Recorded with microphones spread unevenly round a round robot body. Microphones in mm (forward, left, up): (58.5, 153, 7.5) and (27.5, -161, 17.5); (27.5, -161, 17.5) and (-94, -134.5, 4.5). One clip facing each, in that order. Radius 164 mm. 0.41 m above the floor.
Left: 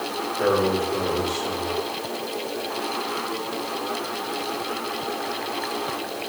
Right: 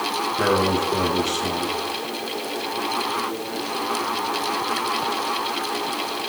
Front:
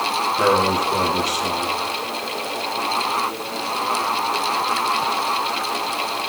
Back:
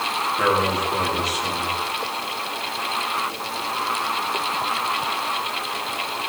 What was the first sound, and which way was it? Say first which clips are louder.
A man speaking: even, front 3 dB; 75° right.